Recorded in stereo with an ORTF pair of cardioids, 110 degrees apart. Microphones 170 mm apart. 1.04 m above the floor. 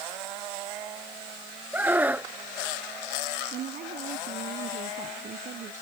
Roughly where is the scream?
Ahead.